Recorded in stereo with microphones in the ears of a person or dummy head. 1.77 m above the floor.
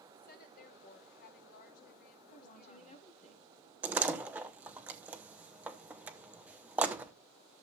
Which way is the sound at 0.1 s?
40° left (ahead or behind).